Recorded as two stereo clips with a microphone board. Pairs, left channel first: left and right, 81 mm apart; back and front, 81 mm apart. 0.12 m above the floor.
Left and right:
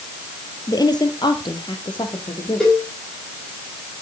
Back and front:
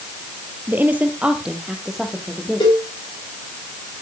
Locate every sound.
0.7 s a woman speaking: 60° left, 2.5 m; by 2.8 s 90° left, 5 m
2.6 s a cowbell: 170° left, 8.5 m